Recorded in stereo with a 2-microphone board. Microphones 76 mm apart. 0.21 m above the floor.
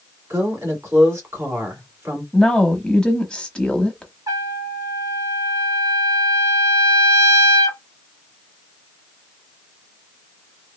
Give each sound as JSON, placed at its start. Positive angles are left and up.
{"t": 0.3, "sound": "a woman speaking", "side_deg": -30, "distance_m": 2.0}
{"t": 2.3, "sound": "a woman speaking", "side_deg": 10, "distance_m": 1.0}
{"t": 4.3, "sound": "a trumpet", "side_deg": -50, "distance_m": 1.5}